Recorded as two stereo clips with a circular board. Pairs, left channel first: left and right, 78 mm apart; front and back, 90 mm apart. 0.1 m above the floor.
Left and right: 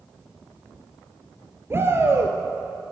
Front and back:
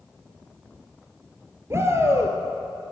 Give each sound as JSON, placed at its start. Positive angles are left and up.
{"t": 1.7, "sound": "a shout", "azimuth_deg": -135, "distance_m": 1.8}